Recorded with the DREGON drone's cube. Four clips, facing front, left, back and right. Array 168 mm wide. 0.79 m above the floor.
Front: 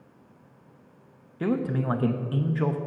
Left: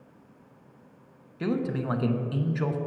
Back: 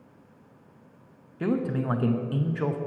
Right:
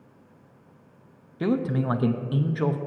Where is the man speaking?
75° right, 0.6 m.